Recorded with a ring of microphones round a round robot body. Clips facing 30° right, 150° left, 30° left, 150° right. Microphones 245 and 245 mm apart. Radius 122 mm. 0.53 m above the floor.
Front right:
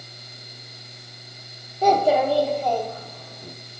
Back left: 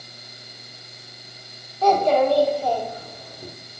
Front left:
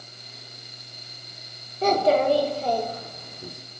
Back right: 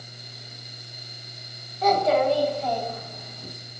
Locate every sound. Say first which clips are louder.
1.8 s a child speaking: back left 1 dB, front left 1 dB; 25° left, 0.8 m; by 3.5 s 85° left, 1.2 m